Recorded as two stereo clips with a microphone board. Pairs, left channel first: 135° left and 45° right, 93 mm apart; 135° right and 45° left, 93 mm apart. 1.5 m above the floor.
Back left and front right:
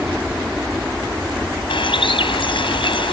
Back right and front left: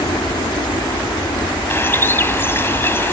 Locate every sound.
0.0 s a helicopter: 120° right
1.7 s a bird: 160° left